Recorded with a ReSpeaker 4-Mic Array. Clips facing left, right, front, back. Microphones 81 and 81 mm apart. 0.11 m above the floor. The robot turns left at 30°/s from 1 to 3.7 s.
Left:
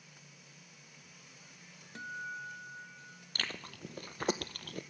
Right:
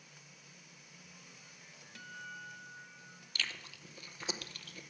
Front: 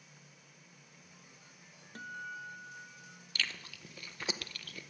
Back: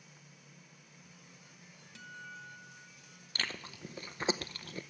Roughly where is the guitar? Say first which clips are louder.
Left 6 dB, front 5 dB; ahead left.